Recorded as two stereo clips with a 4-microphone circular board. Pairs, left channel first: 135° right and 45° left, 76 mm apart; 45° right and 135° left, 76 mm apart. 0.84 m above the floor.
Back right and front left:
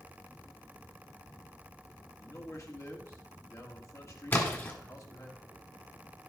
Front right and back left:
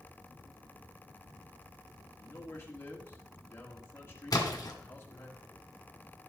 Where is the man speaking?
95° right, 1.7 m.